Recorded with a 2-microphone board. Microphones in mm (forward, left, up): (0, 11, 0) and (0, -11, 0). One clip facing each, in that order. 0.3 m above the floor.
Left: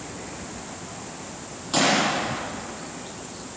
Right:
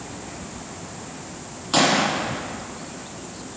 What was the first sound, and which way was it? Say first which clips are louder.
A gunshot: right 2 dB; 15° right (ahead or behind).